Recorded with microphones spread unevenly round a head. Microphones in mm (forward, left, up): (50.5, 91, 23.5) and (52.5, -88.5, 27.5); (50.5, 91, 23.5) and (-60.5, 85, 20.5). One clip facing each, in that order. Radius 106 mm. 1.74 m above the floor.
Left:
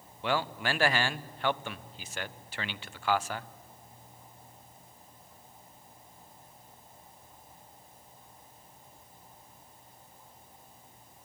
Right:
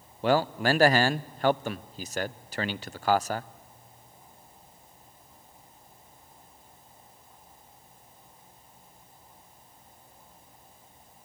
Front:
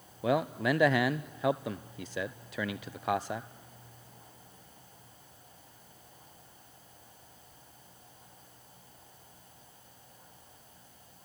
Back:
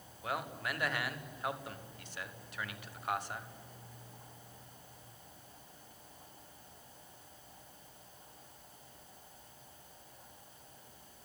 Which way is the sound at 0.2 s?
35° right.